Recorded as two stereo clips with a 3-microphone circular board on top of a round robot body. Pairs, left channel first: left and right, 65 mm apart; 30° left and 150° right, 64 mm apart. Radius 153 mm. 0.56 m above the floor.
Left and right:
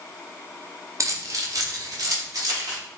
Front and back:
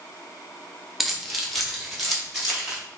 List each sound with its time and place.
1.0 s keys jangling: 65° right, 0.9 m; by 2.8 s 60° right, 1.9 m